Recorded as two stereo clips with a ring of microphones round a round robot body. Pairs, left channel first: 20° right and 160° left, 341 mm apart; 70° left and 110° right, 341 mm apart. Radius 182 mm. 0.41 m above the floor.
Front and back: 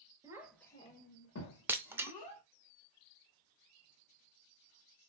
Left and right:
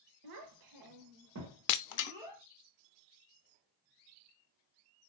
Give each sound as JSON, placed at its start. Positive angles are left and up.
{"t": 0.2, "sound": "a child speaking", "azimuth_deg": -125, "distance_m": 1.2}
{"t": 1.7, "sound": "breaking glass", "azimuth_deg": 75, "distance_m": 0.6}